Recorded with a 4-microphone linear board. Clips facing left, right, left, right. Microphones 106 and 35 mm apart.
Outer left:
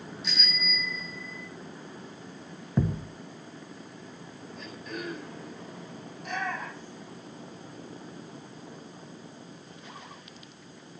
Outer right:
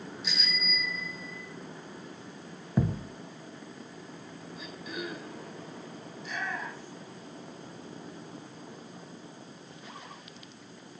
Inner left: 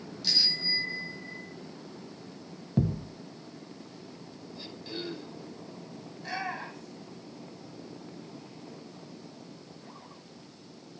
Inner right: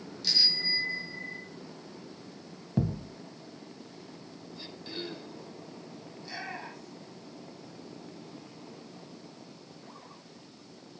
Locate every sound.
0.2 s a bicycle bell: centre (ahead or behind), 7.5 m; by 1.5 s 5° right (ahead or behind), 7 m
2.8 s a thud: 5° right (ahead or behind), 1.6 m
4.5 s throat clearing: 5° right (ahead or behind), 9 m
6.1 s a shout: 55° left (ahead or behind), 9 m